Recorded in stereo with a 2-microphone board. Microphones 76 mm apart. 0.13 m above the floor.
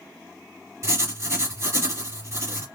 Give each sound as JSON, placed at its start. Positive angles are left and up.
{"t": 0.8, "sound": "writing", "side_deg": -40, "distance_m": 2.0}